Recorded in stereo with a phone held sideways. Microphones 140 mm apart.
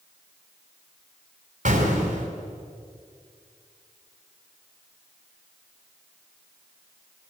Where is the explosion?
65° right (ahead or behind), 4 m.